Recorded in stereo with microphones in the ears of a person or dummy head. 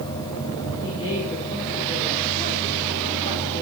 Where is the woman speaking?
30° left (ahead or behind), 5.5 m.